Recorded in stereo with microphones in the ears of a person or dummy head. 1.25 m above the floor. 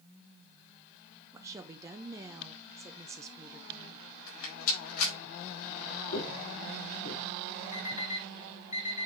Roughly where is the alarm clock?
Left.